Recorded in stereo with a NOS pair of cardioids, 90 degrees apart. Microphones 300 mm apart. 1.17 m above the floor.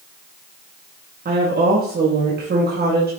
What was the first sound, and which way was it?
A woman speaking, 35° right.